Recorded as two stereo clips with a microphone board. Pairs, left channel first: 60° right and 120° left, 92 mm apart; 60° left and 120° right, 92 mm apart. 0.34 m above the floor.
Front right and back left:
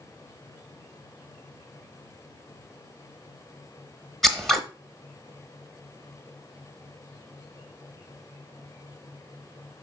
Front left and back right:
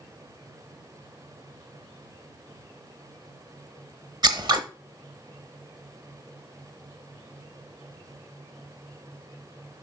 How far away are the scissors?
About 0.8 m.